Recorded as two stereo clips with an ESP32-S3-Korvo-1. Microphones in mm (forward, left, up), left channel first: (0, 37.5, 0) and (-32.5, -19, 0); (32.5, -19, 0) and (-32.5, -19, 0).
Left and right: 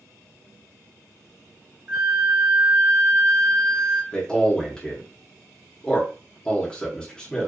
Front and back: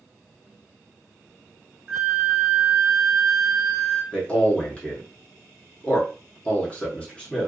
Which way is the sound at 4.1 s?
Straight ahead.